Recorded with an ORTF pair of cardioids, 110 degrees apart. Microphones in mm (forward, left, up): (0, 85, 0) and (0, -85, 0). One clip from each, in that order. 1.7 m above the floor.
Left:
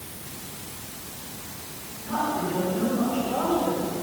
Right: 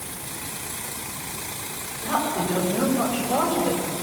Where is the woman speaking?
55° right, 7 m; by 3.9 s 35° right, 7 m.